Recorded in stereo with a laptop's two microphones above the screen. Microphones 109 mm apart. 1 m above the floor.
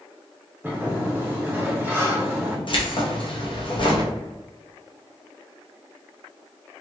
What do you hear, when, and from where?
0.6 s a sliding door: 15° right (ahead or behind), 1.3 m
2.7 s keys jangling: 50° left (ahead or behind), 0.6 m